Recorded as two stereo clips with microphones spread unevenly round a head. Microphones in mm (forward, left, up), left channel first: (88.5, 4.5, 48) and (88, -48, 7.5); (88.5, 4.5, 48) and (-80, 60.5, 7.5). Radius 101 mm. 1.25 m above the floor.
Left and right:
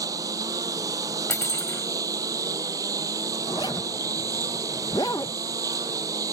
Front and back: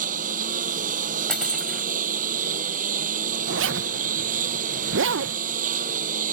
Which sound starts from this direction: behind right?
A lawn mower, at 0.0 s.